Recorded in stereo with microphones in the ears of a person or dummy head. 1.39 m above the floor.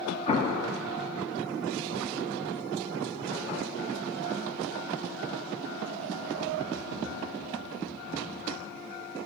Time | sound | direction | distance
0.3 | an explosion | 40° left (ahead or behind) | 1.4 m